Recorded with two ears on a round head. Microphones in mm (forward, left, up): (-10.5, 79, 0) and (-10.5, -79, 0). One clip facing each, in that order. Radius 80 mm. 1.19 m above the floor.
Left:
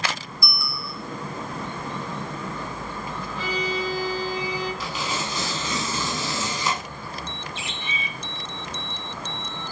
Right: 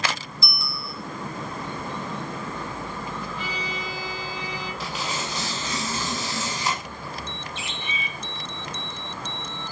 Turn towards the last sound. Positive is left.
turn(degrees=70)  # may be behind; listen again after turning